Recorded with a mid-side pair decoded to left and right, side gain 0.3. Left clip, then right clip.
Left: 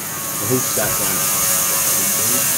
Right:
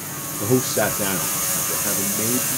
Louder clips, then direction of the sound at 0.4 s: Even; 15° right.